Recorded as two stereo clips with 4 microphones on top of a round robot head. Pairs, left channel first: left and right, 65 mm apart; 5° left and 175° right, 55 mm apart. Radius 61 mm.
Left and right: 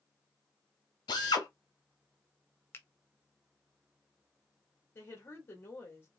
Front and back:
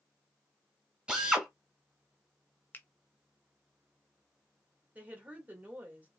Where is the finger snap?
50° left, 0.6 m.